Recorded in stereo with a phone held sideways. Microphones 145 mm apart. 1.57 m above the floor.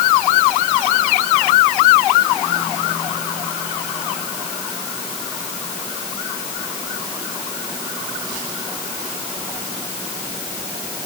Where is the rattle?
I don't hear a rattle.